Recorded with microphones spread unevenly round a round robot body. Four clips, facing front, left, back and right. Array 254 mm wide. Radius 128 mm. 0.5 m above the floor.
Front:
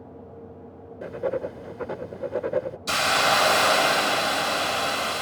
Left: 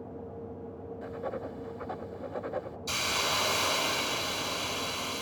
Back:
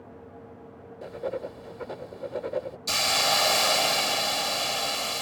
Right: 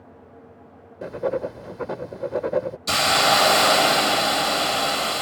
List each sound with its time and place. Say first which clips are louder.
1.0 s writing: right 12 dB, front 5 dB; 70° right
2.9 s a hiss: right 14 dB, front 5 dB; 80° right